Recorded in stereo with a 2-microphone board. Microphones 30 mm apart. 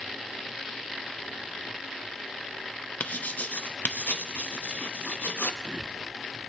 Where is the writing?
70° left (ahead or behind), 0.7 m.